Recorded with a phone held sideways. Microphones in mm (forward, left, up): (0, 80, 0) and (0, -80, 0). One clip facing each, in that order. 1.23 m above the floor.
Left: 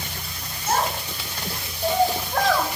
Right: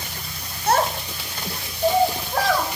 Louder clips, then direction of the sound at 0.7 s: Right 4 dB; 75° right (ahead or behind).